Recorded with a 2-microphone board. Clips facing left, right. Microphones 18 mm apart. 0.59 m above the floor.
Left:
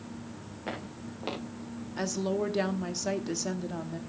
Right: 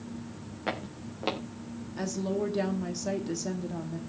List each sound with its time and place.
0.7 s footsteps: 20° right (ahead or behind), 4.5 m
2.0 s a woman speaking: 20° left (ahead or behind), 1.2 m